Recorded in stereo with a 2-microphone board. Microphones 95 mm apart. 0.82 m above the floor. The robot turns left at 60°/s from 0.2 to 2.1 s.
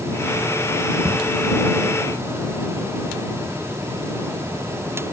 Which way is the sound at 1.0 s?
40° right (ahead or behind).